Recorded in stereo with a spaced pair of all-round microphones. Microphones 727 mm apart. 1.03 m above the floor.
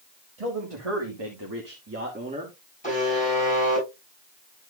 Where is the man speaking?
55° right (ahead or behind), 1.9 m; by 2.6 s 5° right (ahead or behind), 2 m.